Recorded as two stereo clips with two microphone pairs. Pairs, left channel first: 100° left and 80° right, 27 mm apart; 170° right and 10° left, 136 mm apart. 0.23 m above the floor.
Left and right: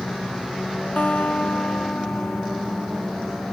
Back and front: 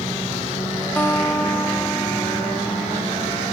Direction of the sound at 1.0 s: 115° left.